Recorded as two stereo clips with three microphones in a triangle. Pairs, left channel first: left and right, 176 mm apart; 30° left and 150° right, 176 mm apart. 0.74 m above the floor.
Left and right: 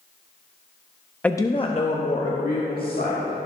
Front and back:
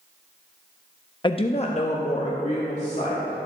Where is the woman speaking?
15° left, 0.5 m; by 3.5 s 75° left, 1.9 m.